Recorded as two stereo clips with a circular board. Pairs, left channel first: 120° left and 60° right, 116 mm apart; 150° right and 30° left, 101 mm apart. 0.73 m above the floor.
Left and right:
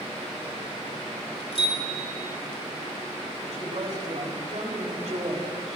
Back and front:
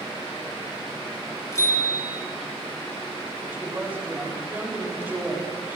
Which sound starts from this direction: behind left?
A bicycle bell, at 1.5 s.